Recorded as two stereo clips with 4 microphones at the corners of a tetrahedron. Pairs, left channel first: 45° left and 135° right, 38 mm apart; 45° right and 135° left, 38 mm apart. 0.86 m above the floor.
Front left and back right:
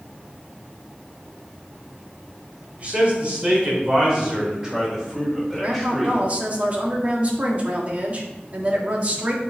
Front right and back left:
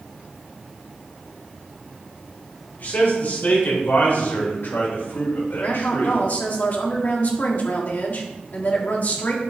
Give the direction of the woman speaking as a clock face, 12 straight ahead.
3 o'clock.